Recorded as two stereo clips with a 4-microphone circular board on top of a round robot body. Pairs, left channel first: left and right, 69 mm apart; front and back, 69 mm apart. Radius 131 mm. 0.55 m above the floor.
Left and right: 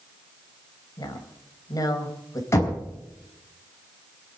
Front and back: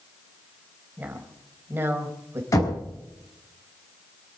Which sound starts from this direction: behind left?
A woman speaking, at 1.0 s.